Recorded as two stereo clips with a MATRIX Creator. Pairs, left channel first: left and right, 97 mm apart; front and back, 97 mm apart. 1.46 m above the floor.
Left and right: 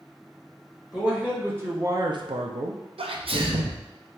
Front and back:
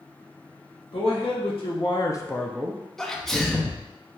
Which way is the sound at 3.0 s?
85° right.